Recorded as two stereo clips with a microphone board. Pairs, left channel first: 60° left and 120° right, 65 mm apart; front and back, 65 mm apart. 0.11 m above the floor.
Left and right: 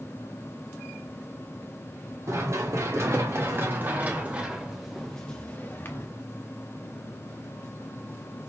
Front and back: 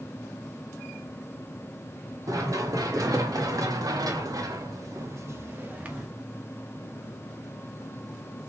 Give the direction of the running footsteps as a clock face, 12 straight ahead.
5 o'clock.